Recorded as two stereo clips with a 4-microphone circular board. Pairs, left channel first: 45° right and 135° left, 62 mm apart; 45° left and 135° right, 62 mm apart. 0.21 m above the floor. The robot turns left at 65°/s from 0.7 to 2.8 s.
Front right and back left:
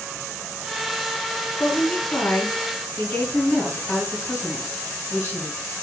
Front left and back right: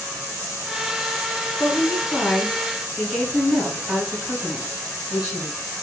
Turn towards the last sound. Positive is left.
turn(degrees=-65)